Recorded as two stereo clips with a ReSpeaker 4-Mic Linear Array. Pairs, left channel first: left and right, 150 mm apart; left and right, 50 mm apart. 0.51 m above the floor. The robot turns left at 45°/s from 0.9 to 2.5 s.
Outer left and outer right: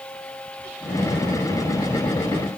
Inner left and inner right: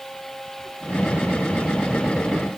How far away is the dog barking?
No dog barking in this recording.